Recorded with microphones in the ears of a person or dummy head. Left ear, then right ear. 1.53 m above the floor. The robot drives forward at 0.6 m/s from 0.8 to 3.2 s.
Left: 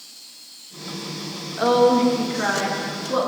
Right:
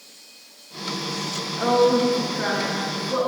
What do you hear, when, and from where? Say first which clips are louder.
1.6 s a woman speaking: left 2 dB; 20° left (ahead or behind), 1.6 m; by 3.3 s 15° left (ahead or behind), 2.5 m